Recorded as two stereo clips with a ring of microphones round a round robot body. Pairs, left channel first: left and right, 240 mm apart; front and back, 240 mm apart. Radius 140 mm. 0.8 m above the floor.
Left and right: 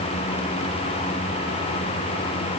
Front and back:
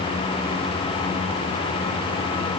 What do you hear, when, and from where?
Only background noise.